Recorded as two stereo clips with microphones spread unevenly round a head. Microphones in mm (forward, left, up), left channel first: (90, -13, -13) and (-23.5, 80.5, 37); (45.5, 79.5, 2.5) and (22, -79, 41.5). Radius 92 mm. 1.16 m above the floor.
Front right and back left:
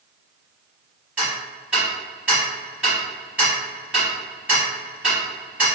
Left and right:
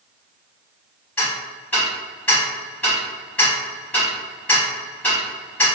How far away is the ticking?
About 1.1 m.